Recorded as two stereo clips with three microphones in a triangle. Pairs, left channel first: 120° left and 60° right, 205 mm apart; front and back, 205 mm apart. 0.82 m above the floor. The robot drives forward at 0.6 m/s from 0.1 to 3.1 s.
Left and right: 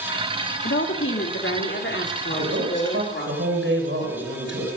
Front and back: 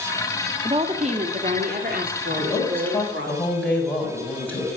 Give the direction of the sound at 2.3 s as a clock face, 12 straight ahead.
3 o'clock.